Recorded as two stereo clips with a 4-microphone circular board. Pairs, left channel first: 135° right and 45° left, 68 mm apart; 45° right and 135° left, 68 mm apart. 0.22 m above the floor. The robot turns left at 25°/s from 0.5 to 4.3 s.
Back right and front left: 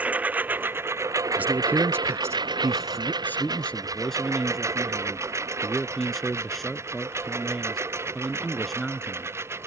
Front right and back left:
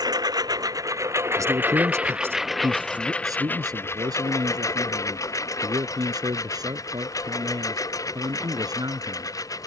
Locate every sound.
0.0 s a lawn mower: 115° left; by 9.7 s 10° right
1.4 s a man speaking: 110° left; by 3.1 s 65° left
3.2 s a man speaking: 165° left; by 9.4 s 140° left